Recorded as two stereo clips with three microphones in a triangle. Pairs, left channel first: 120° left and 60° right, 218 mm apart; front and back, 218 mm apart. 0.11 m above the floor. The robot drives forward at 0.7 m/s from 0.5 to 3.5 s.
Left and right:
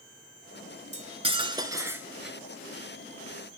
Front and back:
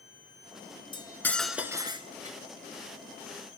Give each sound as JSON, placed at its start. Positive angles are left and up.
{"t": 0.9, "sound": "cutlery clinking", "azimuth_deg": -50, "distance_m": 1.0}